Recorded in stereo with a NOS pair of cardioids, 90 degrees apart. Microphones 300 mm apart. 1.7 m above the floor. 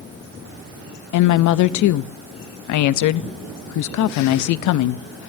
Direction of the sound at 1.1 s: 65° left.